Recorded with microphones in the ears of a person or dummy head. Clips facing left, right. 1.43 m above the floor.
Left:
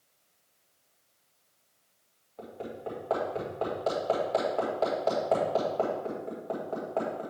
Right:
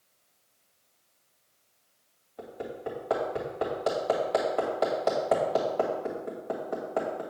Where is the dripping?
No dripping in this recording.